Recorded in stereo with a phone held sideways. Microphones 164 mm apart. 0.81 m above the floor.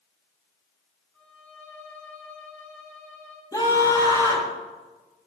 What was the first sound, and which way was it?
A violin, 10° left (ahead or behind).